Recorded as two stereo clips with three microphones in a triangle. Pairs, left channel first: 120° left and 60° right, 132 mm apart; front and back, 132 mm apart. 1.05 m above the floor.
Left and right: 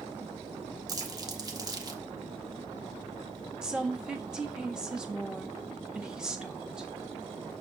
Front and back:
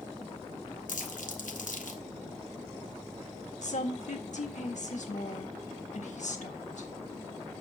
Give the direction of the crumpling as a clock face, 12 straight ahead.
12 o'clock.